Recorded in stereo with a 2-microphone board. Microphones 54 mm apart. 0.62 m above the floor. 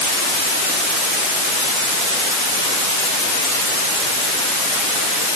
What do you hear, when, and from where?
Only background noise.